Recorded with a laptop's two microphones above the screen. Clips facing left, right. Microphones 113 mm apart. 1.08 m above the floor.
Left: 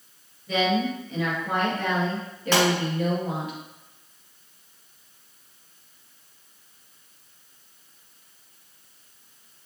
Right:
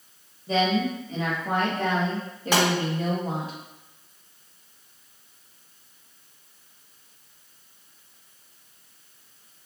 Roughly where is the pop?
Centre.